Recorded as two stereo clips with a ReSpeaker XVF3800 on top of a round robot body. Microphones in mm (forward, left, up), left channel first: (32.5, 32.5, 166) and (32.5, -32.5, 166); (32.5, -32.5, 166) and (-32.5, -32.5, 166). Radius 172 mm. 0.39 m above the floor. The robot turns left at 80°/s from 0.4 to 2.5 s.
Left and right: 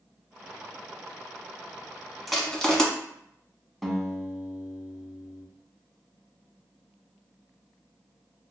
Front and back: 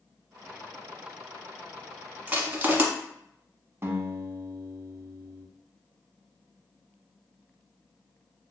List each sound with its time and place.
2.3 s crushing: 175° right, 1.3 m; by 2.9 s 165° left, 1.3 m
3.8 s a guitar: straight behind, 1.0 m